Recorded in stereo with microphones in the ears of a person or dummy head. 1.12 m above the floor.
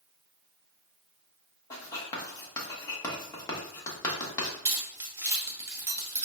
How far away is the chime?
I don't hear a chime.